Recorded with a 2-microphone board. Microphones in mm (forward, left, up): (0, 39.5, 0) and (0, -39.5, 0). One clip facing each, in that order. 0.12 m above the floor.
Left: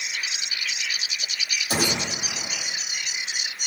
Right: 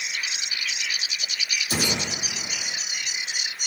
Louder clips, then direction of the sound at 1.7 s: Left 3 dB; 50° left (ahead or behind).